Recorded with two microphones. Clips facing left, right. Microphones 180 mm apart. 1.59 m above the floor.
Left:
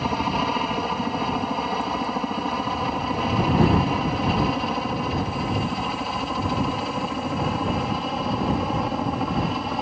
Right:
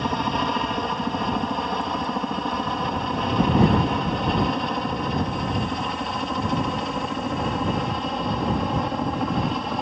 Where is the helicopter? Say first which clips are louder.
Even; 5° left (ahead or behind); by 9.8 s centre (ahead or behind).